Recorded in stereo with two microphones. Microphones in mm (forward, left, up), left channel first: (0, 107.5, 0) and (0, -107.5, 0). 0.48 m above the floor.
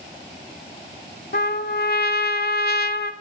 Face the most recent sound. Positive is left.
turn(degrees=50)  # may be behind; listen again after turning